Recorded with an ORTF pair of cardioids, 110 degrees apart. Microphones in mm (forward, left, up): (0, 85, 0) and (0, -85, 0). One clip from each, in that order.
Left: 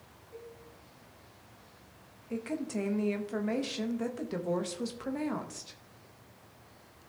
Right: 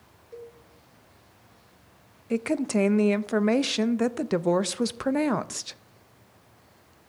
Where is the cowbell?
50° right, 2 m.